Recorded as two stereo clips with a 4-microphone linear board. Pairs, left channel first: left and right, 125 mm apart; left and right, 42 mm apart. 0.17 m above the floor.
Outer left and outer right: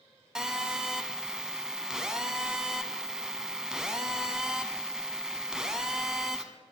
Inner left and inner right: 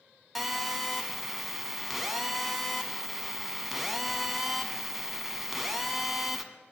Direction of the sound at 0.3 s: 5° right (ahead or behind).